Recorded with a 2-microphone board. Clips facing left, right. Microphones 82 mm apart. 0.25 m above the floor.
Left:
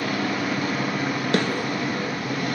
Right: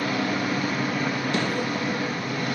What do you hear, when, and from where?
0.0 s an engine running: 70° left (ahead or behind), 2.5 m
1.3 s a snare drum: 75° left (ahead or behind), 0.7 m